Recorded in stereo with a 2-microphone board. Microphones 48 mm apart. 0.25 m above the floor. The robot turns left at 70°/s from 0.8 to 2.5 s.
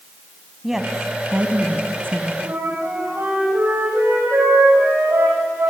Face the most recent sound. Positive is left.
turn(degrees=-75)  # may be behind; listen again after turning